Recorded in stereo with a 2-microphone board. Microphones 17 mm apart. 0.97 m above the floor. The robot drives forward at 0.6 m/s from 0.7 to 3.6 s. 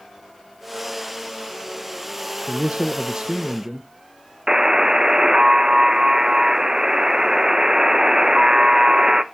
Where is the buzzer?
40° right (ahead or behind), 0.6 m.